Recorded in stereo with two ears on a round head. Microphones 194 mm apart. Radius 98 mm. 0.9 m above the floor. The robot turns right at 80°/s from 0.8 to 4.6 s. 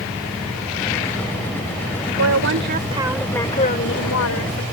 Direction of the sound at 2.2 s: 85° right.